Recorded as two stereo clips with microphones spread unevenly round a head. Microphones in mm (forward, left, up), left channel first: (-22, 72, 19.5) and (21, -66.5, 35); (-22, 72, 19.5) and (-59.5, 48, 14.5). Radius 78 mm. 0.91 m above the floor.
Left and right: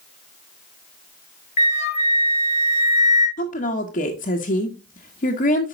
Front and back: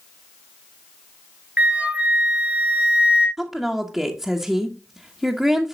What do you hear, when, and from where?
1.6 s a flute: 155° left, 1.5 m
3.4 s a woman speaking: 130° left, 1.4 m